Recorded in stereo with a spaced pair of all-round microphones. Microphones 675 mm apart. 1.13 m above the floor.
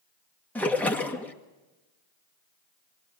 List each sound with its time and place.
0.6 s a splash: centre (ahead or behind), 1.6 m